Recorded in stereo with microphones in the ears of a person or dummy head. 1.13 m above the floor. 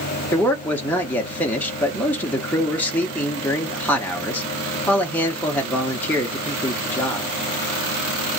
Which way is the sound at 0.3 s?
10° left (ahead or behind).